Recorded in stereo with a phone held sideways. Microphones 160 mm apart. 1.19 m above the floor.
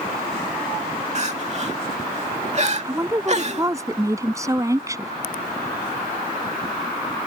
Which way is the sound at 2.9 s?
20° right (ahead or behind).